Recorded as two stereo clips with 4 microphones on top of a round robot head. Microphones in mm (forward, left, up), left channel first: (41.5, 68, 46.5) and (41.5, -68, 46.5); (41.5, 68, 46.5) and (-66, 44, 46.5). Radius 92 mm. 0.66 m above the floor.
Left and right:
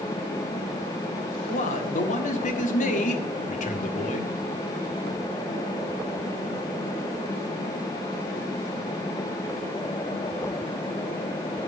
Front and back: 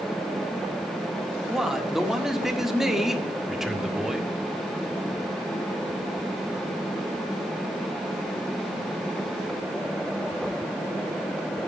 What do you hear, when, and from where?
1.5 s a man speaking: 105° left, 1.6 m